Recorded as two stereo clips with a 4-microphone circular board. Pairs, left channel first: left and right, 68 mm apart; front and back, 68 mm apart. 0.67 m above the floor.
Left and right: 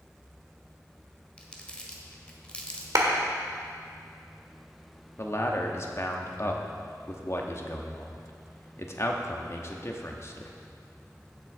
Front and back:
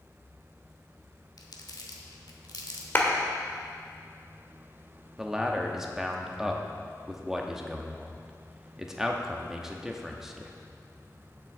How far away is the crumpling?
About 1.4 m.